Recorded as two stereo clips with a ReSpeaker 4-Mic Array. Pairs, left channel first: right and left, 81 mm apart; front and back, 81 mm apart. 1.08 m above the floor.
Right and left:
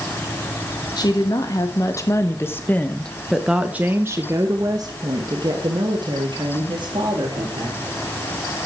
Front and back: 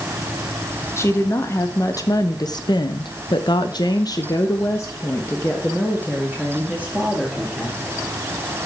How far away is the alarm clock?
I don't hear an alarm clock.